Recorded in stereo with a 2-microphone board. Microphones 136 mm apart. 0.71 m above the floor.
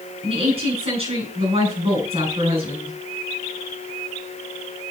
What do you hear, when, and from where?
0.2 s a woman speaking: 40° right (ahead or behind), 7.5 m